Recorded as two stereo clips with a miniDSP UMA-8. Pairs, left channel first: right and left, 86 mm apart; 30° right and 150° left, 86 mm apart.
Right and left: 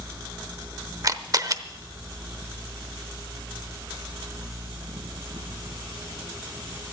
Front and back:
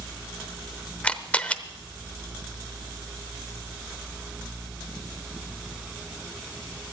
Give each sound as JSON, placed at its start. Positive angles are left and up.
{"t": 1.0, "sound": "a camera shutter", "azimuth_deg": 45, "distance_m": 0.8}